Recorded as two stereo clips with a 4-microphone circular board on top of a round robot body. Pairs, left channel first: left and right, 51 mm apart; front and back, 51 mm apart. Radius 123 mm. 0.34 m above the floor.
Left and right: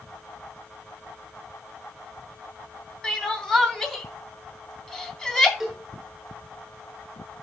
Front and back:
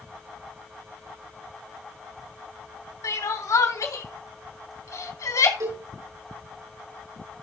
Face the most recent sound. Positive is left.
turn(degrees=180)